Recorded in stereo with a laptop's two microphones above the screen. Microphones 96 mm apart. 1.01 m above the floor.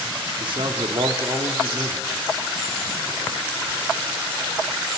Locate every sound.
0.4 s a man speaking: 60° right (ahead or behind), 2 m